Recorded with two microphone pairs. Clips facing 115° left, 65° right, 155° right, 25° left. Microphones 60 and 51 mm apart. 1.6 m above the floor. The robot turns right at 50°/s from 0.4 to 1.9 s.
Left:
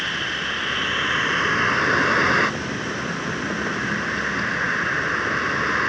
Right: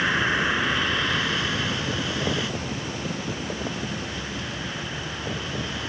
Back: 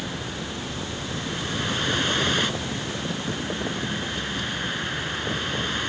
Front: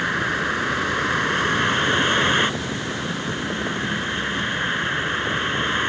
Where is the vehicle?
5° left; by 5.9 s 80° left.